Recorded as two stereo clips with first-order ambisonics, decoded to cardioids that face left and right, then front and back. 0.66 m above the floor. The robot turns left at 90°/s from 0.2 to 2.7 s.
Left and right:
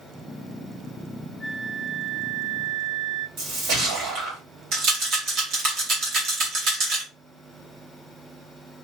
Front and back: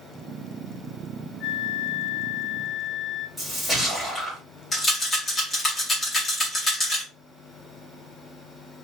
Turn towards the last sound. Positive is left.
turn(degrees=-75)